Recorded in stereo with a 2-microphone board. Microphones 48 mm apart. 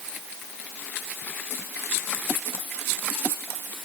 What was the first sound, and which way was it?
Only background noise.